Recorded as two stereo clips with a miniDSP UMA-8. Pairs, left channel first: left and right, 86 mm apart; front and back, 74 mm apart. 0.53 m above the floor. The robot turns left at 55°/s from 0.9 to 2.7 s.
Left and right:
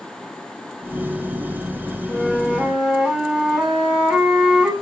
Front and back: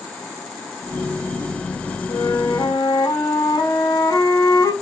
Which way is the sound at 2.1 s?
25° left.